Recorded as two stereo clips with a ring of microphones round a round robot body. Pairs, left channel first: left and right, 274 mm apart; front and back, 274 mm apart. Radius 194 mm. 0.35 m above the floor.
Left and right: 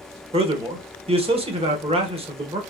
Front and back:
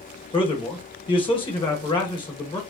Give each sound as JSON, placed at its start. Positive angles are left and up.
{"t": 0.3, "sound": "a man speaking", "azimuth_deg": -50, "distance_m": 1.0}